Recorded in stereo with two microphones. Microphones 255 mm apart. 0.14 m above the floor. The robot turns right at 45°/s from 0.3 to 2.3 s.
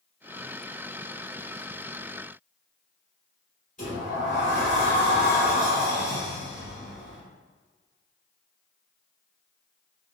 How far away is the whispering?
I don't hear whispering.